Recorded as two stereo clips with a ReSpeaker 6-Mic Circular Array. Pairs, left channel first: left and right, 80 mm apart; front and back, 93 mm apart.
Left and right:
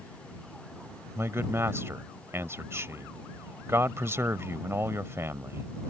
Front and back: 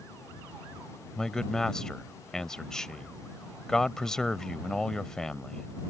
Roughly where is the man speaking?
Right.